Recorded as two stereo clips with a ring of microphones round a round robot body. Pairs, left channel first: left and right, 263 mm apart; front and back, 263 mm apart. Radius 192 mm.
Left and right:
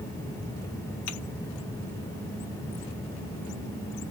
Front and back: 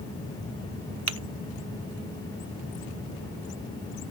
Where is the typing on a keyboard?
135° left, 0.5 m.